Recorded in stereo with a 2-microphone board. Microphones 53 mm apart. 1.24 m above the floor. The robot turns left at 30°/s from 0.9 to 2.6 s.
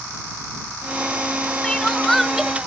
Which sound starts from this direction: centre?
Crying, at 1.6 s.